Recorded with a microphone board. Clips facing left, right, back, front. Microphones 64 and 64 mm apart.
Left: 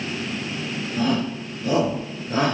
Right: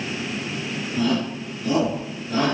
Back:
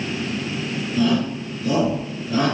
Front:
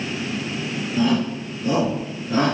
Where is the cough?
I don't hear a cough.